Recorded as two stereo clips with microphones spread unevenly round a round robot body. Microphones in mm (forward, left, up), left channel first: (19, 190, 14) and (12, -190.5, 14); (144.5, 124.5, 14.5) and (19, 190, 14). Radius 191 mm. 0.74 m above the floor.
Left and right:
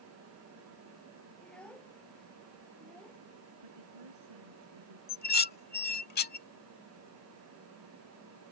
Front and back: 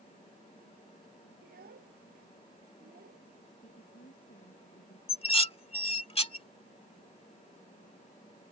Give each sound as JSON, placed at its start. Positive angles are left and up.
{"t": 1.4, "sound": "a child speaking", "azimuth_deg": 175}
{"t": 3.6, "sound": "a woman speaking", "azimuth_deg": -80}
{"t": 5.1, "sound": "dishes clattering", "azimuth_deg": 20}